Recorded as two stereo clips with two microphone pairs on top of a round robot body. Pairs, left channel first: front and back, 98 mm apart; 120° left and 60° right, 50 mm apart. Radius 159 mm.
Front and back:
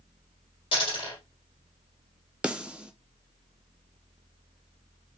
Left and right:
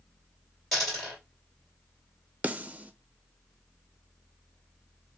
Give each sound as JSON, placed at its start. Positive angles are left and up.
{"t": 0.7, "sound": "a dropped coin", "azimuth_deg": 35, "distance_m": 1.5}
{"t": 2.4, "sound": "a snare drum", "azimuth_deg": -115, "distance_m": 0.6}